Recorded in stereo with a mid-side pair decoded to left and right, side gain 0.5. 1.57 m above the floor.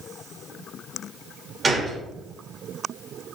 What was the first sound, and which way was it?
A gunshot, 30° right.